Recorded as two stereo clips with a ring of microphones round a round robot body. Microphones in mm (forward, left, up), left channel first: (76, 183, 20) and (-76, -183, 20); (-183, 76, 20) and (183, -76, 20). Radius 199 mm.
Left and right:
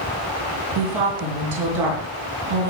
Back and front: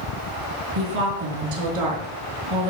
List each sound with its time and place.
0.8 s a woman speaking: 70° right, 5.5 m